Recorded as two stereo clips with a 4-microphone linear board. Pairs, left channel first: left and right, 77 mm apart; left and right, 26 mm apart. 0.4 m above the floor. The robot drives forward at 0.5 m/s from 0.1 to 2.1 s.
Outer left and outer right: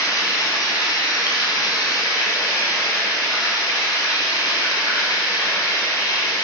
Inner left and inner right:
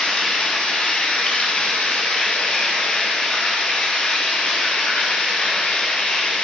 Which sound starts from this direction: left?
Running water, at 0.0 s.